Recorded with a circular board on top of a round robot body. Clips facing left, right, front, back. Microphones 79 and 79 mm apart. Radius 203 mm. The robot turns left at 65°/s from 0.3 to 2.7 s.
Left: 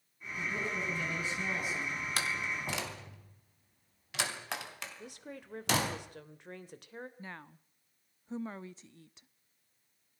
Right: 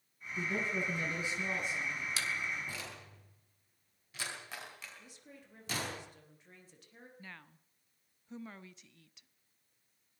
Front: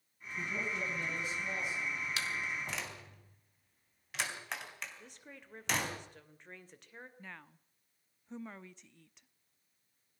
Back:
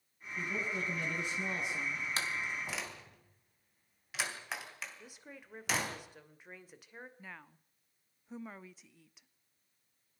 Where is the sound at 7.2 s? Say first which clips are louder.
Left 5 dB, even; 100° left, 1.1 m.